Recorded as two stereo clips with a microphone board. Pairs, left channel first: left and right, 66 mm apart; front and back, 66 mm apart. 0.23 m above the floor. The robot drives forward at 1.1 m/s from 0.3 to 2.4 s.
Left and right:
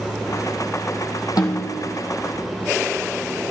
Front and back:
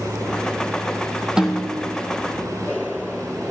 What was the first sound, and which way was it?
A snare drum, 100° left.